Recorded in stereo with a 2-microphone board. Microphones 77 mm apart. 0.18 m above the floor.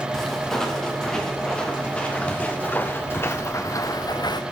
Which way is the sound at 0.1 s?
5° left (ahead or behind).